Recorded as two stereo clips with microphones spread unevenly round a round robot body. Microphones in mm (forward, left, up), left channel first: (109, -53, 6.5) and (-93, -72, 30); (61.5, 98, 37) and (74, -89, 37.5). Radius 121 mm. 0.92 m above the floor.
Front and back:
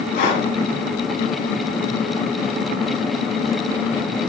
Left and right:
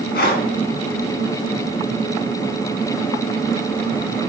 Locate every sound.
0.1 s breathing: 55° left, 1.7 m